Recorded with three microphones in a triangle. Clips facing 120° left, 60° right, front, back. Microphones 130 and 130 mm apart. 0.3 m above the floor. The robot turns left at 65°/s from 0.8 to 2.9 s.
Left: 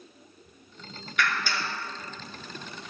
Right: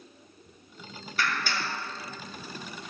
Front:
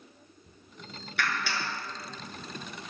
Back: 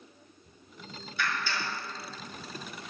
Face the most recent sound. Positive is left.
turn(degrees=-115)